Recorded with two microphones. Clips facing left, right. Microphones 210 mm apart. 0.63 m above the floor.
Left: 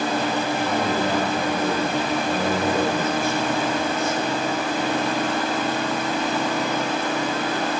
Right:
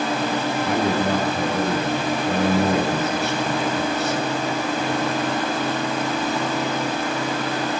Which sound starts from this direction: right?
A man speaking, at 0.6 s.